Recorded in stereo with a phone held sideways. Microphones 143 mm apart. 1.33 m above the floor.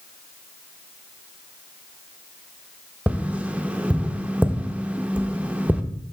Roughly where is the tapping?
Centre.